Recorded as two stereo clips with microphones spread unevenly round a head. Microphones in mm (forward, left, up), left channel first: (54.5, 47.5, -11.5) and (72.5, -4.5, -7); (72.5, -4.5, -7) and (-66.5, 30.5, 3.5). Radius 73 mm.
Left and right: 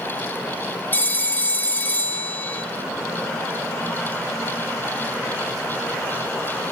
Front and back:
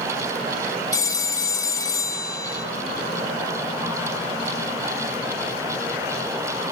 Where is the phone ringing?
55° left, 1.5 m.